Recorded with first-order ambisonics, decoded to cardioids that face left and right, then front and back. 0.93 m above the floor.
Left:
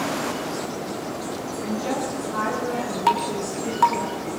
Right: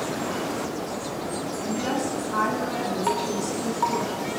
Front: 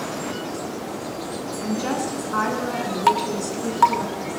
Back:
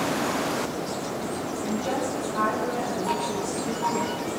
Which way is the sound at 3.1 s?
25° left.